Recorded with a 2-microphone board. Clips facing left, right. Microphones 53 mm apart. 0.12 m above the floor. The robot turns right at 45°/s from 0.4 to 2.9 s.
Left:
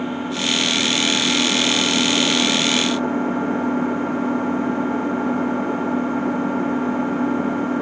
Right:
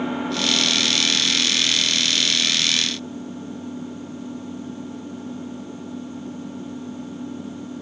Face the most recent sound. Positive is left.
turn(degrees=115)